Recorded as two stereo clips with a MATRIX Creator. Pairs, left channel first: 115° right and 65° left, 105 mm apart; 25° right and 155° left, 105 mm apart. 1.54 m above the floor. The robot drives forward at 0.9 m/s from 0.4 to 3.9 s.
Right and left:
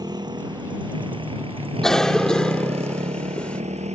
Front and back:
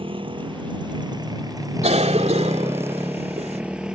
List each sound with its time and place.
0.0 s a motorcycle: 120° left; by 4.0 s 75° left
1.8 s a cough: 160° left; by 3.6 s 165° left